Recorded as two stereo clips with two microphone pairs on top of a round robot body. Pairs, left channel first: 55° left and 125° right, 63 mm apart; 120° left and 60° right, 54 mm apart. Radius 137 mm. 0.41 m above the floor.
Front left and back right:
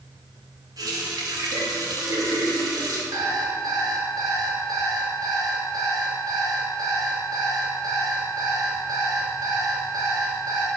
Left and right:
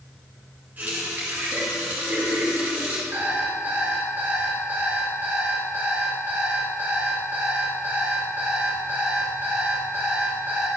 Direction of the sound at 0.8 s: 115° right.